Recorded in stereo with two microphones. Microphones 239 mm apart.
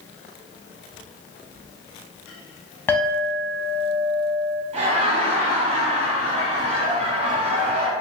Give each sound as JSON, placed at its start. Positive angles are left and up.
{"t": 2.9, "sound": "a clink", "side_deg": 10, "distance_m": 0.6}
{"t": 4.7, "sound": "laughter", "side_deg": -30, "distance_m": 1.2}